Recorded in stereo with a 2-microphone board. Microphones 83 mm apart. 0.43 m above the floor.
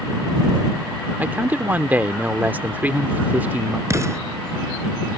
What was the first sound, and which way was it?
A man speaking, 20° right (ahead or behind).